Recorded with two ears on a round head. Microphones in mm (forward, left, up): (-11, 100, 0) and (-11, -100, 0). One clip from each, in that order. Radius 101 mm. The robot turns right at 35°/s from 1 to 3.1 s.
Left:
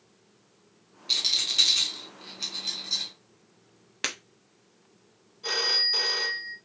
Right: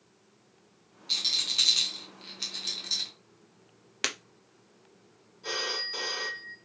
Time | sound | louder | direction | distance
1.1 | a rattle | left 3 dB | 10° left (ahead or behind) | 0.9 m
4.0 | breaking glass | even | 10° right (ahead or behind) | 0.6 m
5.4 | a phone ringing | left 8 dB | 15° left (ahead or behind) | 1.0 m